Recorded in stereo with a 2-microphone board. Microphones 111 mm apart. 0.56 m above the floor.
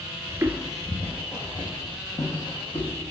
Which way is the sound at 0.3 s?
30° right (ahead or behind).